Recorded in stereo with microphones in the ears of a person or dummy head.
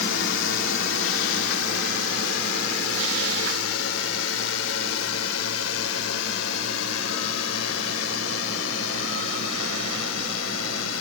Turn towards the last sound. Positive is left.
turn(degrees=85)